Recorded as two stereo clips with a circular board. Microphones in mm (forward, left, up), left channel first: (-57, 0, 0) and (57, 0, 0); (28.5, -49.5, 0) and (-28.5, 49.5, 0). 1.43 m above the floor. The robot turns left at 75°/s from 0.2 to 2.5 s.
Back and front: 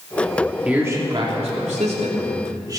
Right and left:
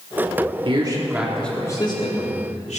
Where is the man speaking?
80° left, 3 m; by 2.8 s 55° right, 3 m.